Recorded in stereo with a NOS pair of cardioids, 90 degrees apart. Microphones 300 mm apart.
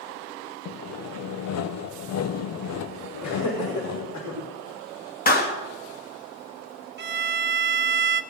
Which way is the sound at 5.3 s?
30° left.